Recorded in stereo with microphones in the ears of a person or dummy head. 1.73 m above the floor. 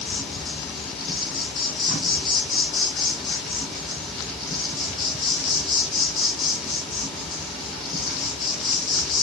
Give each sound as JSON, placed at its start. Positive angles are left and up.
{"t": 0.0, "sound": "an insect", "side_deg": 0, "distance_m": 1.0}